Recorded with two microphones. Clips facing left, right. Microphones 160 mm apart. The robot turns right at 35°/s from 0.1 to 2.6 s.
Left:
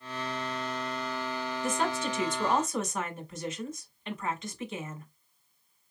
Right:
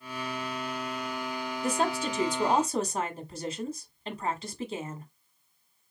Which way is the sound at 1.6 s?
100° right.